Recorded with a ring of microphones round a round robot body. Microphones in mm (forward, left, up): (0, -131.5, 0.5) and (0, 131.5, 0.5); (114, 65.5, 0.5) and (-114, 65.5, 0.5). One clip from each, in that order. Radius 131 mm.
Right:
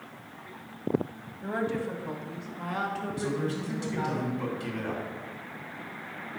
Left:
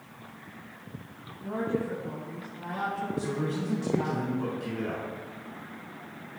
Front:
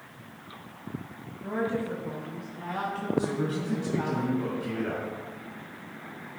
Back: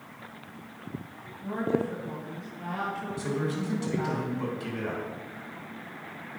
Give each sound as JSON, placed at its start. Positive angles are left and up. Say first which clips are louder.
{"t": 1.4, "sound": "a woman speaking", "louder": "even, back 1 dB", "azimuth_deg": -80, "distance_m": 1.6}
{"t": 3.2, "sound": "a man speaking", "louder": "even, front 3 dB", "azimuth_deg": -140, "distance_m": 3.5}